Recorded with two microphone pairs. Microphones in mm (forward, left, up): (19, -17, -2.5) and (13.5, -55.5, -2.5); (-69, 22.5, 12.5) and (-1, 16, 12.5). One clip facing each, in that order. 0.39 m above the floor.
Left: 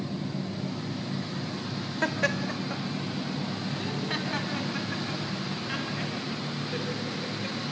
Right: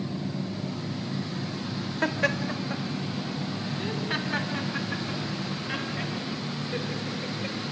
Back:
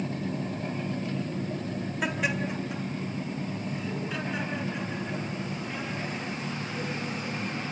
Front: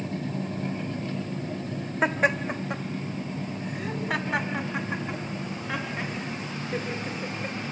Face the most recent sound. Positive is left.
turn(degrees=-15)